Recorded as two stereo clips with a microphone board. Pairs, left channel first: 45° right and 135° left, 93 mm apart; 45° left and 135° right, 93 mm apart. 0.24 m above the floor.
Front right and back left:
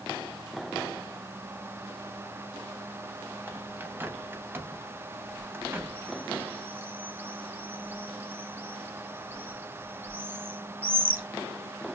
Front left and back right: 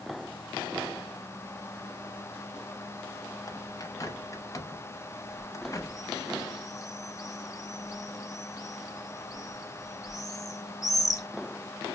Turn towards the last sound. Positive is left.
turn(degrees=75)